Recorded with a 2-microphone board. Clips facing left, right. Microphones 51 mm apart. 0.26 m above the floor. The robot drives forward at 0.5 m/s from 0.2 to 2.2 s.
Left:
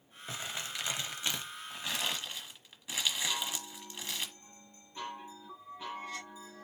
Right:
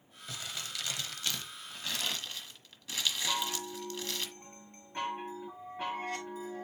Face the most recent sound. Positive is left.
turn(degrees=-55)  # may be behind; listen again after turning